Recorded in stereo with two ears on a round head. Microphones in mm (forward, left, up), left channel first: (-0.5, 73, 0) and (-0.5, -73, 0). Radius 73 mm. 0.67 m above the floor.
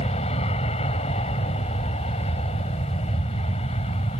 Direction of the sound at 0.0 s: 40° left (ahead or behind).